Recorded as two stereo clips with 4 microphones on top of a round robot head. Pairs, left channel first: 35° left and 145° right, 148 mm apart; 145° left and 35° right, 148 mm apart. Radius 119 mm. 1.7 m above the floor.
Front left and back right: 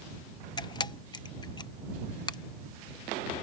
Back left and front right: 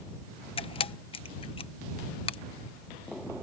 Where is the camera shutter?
95° left.